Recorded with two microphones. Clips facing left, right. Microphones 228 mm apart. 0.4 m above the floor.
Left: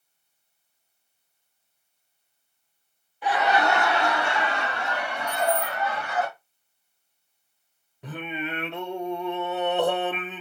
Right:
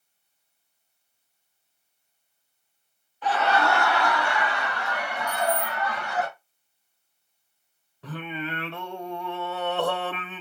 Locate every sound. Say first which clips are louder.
3.2 s laughter: left 1 dB; 10° left (ahead or behind), 0.7 m; by 6.3 s 25° left (ahead or behind), 1.8 m
5.3 s keys jangling: left 2 dB; 65° right (ahead or behind), 1.2 m
8.0 s singing: left 1 dB; 20° left (ahead or behind), 0.7 m